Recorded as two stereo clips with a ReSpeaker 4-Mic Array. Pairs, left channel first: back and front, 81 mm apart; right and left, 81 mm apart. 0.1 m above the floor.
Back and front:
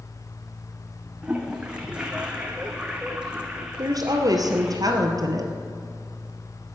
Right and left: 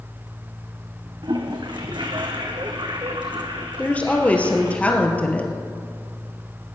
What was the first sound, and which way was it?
A toilet flushing, 75° left.